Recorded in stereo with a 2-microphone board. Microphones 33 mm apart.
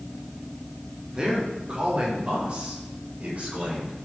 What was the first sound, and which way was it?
A man speaking, 30° right (ahead or behind).